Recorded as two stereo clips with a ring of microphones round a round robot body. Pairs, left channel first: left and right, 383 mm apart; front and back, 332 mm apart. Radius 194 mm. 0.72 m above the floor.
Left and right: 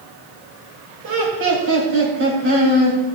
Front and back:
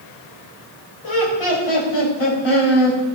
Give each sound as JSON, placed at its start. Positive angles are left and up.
{"t": 1.0, "sound": "laughter", "azimuth_deg": -35, "distance_m": 4.0}